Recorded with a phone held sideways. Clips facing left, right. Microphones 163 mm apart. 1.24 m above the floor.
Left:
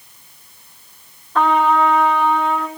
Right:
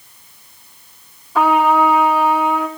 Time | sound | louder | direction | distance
1.4 | a trumpet | right 2 dB | 5° right (ahead or behind) | 2.5 m